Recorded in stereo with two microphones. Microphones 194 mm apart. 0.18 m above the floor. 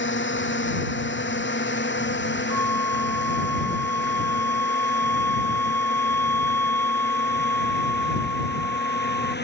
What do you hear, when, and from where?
0.0 s a drone: 70° left (ahead or behind); by 9.4 s 60° left (ahead or behind)
2.5 s a flute: 10° left (ahead or behind)